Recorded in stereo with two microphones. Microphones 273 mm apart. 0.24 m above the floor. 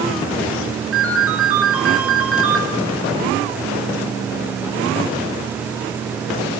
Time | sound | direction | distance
0.9 | a ringtone | 50° right (ahead or behind) | 2.5 m